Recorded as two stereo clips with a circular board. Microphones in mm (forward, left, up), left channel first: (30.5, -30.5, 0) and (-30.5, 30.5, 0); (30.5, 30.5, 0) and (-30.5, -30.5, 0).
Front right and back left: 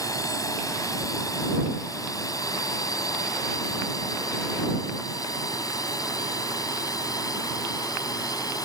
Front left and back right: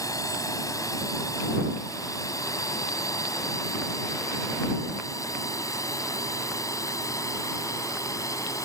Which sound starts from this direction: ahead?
A drone, at 0.0 s.